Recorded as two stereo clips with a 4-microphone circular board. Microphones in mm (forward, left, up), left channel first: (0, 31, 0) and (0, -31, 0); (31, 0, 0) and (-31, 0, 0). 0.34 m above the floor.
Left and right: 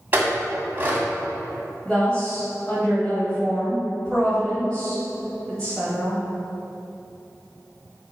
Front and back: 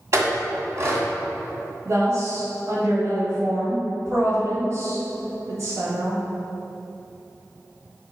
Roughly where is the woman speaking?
Behind.